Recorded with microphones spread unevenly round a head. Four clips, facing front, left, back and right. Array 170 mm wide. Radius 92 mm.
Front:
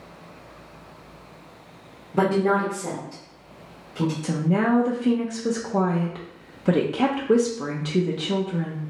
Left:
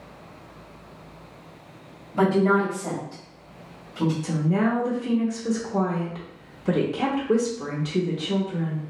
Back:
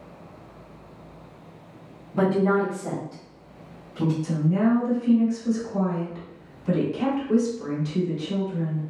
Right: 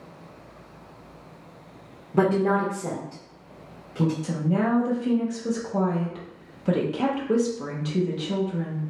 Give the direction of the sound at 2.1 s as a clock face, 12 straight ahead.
2 o'clock.